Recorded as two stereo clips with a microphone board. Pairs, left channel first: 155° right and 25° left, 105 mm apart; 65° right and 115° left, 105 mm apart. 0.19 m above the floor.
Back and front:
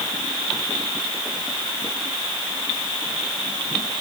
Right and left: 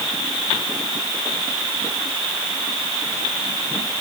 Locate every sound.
Only background noise.